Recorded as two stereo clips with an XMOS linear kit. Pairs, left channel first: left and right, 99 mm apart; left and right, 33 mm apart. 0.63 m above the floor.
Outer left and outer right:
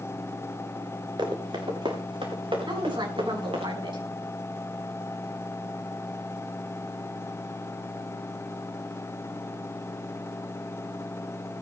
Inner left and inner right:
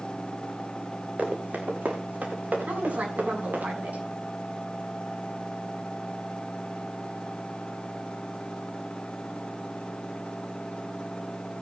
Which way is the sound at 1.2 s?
55° right (ahead or behind).